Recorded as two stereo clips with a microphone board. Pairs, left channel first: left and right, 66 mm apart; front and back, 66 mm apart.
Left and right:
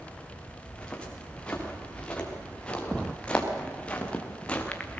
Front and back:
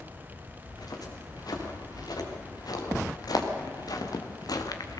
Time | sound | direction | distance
0.6 | footsteps | 15° left | 5.5 m